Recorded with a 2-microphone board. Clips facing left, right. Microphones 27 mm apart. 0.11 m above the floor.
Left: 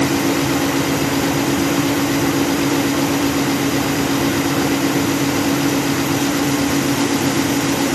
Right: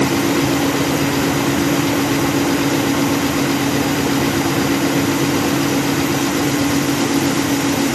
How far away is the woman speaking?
I don't hear a woman speaking.